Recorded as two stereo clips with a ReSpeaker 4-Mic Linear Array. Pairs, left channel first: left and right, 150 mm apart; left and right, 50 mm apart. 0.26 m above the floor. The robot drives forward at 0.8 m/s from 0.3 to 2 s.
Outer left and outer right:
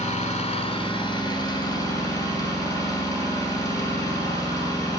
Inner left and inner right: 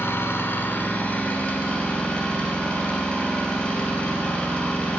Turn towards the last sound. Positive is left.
turn(degrees=20)  # may be behind; listen again after turning